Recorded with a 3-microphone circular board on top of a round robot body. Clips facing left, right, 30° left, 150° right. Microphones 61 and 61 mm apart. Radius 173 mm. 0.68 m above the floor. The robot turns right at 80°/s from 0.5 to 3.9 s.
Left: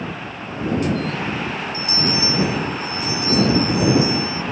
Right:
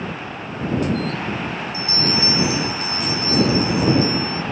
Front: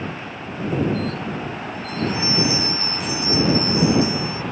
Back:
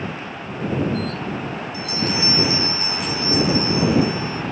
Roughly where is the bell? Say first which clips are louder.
Right 1 dB, even; behind.